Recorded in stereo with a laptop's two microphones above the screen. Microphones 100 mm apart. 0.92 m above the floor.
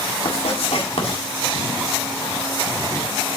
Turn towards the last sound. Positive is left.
turn(degrees=80)